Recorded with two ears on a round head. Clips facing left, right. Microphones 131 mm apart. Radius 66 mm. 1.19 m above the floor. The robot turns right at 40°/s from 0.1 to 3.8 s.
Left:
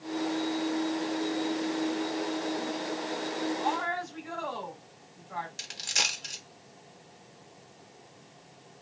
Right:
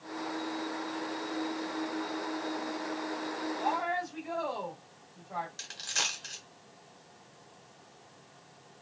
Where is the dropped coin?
20° left (ahead or behind), 1.2 m.